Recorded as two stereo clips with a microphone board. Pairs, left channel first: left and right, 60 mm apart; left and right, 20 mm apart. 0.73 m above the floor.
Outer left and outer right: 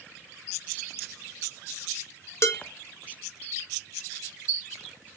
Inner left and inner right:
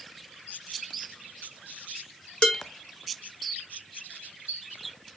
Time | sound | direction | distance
2.4 | dishes clattering | 55° left (ahead or behind) | 1.6 m